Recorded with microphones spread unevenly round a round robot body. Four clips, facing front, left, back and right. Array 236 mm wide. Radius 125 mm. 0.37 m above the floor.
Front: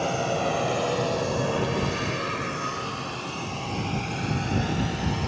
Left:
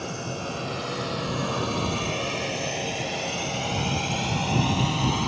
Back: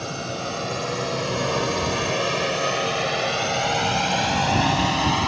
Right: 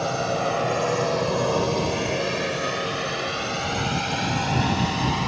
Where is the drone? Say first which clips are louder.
Right 9 dB, front 4 dB; 65° right; by 5.3 s straight behind.